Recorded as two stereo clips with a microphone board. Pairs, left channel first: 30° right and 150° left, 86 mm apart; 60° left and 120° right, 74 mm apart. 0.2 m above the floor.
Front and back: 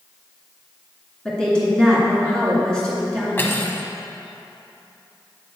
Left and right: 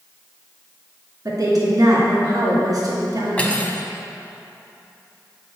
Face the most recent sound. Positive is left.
turn(degrees=5)